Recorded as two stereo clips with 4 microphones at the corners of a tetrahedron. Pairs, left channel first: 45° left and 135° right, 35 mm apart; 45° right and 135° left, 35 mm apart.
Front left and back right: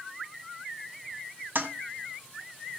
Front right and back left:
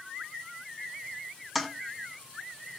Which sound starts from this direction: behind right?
A toilet flushing, at 1.6 s.